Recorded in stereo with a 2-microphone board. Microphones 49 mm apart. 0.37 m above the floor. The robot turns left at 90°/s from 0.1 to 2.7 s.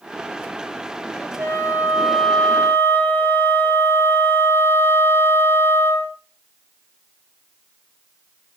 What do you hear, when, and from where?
1.4 s a flute: 115° right, 1.7 m; by 6.2 s 125° left, 1.7 m